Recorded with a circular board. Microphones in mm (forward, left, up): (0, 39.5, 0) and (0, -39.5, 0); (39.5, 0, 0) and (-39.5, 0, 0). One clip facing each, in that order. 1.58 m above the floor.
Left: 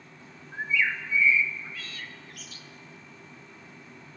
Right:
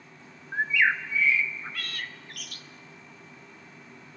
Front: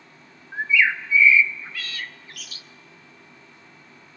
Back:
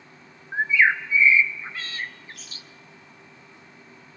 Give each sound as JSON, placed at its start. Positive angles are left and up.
{"t": 0.5, "sound": "a bird", "azimuth_deg": -120, "distance_m": 0.7}